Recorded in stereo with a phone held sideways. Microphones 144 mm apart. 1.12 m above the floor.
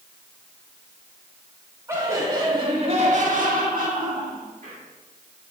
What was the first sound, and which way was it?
Laughter, 20° right (ahead or behind).